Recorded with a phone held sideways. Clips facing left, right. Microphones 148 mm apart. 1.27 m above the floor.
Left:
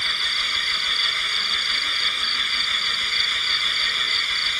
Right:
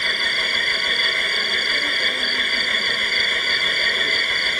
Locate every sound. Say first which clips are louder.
0.0 s an engine running: right 7 dB; 60° right (ahead or behind)